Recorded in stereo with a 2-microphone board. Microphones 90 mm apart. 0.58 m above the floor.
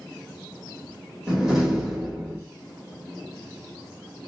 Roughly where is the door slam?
Centre.